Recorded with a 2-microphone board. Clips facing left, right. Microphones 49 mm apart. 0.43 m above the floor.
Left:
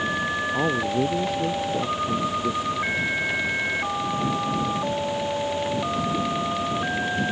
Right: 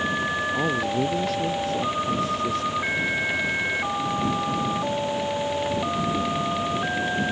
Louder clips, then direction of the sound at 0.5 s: Left 3 dB; 15° left (ahead or behind).